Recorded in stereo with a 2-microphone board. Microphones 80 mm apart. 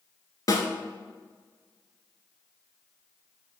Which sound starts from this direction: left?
A snare drum, at 0.5 s.